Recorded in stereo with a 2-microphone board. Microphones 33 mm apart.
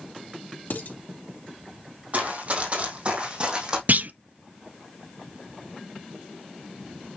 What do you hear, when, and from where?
0.7 s dishes clattering: 70° left (ahead or behind), 2.5 m
2.1 s running footsteps: 45° right (ahead or behind), 3.5 m; by 3.8 s 30° right (ahead or behind), 3.5 m
3.9 s a clunk: 60° right (ahead or behind), 0.6 m